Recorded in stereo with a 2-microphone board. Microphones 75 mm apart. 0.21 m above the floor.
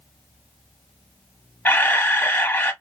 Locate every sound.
1.6 s a camera shutter: 25° left (ahead or behind), 0.9 m